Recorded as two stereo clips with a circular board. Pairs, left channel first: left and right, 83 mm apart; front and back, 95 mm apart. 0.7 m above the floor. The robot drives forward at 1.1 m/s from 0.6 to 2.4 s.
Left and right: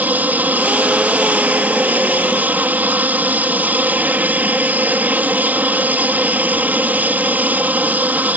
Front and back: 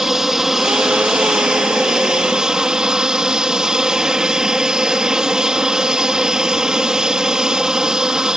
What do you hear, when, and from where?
0.0 s an aircraft: 100° right; by 8.4 s 110° right